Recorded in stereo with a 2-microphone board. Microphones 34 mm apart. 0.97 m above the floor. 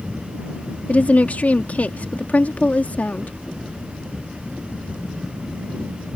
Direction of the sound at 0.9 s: 50° left (ahead or behind).